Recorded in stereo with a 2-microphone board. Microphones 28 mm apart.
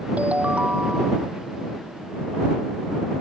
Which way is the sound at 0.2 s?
55° right (ahead or behind).